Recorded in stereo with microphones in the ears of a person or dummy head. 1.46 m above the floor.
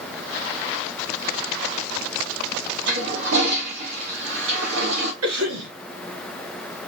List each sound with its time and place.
2.9 s a toilet flushing: 70° right (ahead or behind), 1.7 m
5.2 s a cough: 85° right, 2.5 m